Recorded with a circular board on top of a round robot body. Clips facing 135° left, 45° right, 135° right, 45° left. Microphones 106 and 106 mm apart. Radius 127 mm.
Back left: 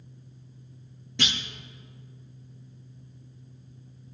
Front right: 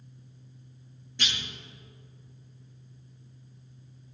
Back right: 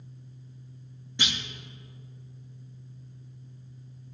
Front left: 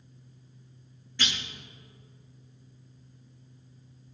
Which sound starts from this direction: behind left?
A clunk, at 1.2 s.